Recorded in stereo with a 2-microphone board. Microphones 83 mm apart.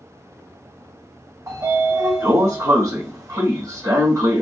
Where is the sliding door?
45° right (ahead or behind), 1.5 m.